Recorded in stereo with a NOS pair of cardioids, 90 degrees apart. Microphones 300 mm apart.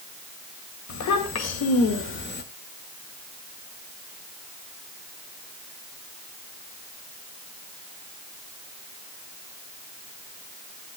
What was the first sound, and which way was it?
A child speaking, 65° left.